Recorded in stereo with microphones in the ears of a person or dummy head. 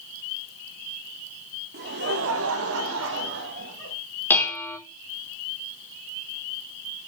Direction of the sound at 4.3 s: 15° left (ahead or behind).